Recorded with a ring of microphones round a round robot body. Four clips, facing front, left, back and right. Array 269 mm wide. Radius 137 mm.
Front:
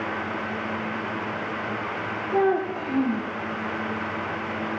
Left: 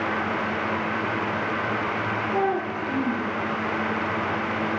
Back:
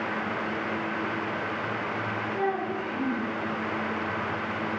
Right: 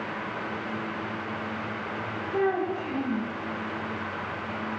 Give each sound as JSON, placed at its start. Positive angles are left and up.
{"t": 2.3, "sound": "a child speaking", "azimuth_deg": 20, "distance_m": 9.5}